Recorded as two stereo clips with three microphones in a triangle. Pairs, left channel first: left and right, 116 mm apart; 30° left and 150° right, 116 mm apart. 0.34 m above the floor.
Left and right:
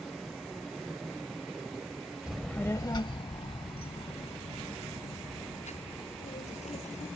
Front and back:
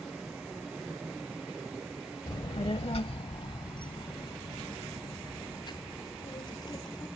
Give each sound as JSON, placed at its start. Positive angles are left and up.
{"t": 2.3, "sound": "a child speaking", "azimuth_deg": -10}